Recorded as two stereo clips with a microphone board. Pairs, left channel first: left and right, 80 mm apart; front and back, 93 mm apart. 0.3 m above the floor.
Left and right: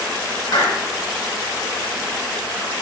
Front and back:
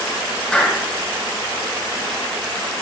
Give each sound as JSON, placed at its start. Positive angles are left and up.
{"t": 0.5, "sound": "a clap", "azimuth_deg": 80, "distance_m": 3.0}